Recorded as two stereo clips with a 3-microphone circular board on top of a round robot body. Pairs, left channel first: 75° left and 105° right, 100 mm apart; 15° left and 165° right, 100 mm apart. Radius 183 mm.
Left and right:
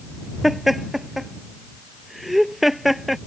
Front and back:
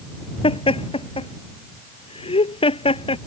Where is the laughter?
15° right.